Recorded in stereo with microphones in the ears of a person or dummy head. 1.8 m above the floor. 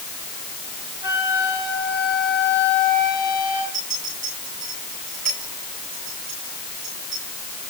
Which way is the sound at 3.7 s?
35° right (ahead or behind).